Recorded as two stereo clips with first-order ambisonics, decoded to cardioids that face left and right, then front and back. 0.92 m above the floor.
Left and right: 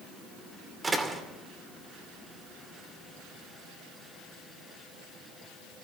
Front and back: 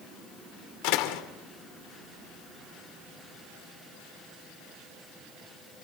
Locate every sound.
0.8 s a door slam: 10° right, 2.5 m